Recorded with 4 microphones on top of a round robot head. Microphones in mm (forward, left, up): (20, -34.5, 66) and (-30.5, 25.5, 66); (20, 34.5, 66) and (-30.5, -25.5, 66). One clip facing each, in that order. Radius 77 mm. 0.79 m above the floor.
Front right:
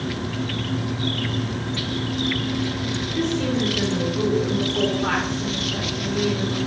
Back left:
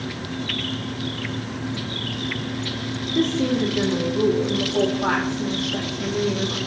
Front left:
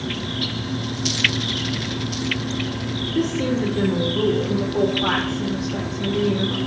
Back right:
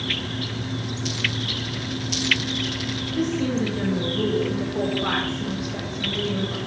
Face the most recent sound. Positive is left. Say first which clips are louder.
# back left 3 dB, front left 2 dB
turn(degrees=70)